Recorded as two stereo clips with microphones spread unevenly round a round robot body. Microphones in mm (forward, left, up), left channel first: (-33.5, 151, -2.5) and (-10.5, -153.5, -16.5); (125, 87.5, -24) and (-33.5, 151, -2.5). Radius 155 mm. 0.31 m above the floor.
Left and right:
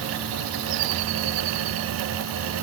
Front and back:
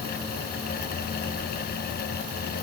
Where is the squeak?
No squeak in this recording.